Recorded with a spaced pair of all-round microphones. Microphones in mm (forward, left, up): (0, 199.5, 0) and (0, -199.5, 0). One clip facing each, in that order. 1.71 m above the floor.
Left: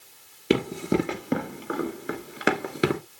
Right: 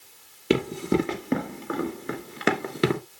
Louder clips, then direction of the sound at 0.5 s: Even; centre (ahead or behind).